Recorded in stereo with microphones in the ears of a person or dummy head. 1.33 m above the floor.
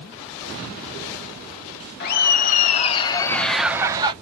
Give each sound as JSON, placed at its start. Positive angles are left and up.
{"t": 2.0, "sound": "laughter", "side_deg": 55, "distance_m": 0.9}